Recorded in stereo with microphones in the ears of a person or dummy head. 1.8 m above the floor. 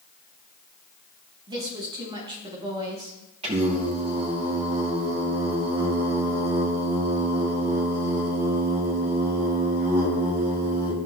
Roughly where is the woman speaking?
Right.